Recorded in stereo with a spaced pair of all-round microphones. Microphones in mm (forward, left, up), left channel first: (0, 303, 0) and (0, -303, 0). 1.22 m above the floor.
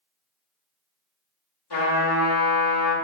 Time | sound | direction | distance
1.7 | a trumpet | 40° left (ahead or behind) | 1.2 m